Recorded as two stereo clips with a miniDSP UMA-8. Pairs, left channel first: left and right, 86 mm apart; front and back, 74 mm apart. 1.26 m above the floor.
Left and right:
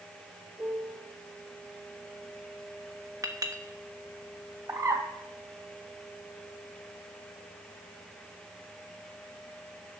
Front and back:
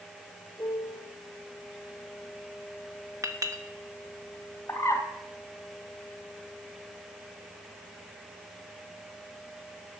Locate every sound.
0.6 s a piano: 35° right, 5 m
3.2 s a clink: 140° right, 1.2 m
4.7 s a bird: 45° right, 2 m